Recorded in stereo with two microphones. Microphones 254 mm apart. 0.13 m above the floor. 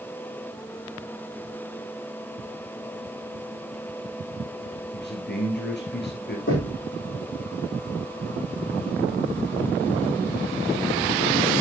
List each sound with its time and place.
4.9 s a man speaking: 45° left (ahead or behind), 2 m
6.5 s knocking: 50° left (ahead or behind), 6.5 m